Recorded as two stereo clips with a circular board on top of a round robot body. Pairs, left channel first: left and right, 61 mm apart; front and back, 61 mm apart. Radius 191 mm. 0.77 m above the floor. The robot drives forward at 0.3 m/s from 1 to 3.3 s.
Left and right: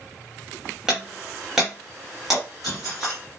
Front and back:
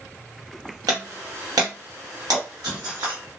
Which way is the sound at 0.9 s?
170° right.